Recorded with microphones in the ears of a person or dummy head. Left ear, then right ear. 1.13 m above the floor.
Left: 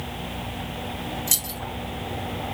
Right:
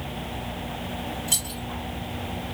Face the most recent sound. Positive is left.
turn(degrees=65)  # may be behind; listen again after turning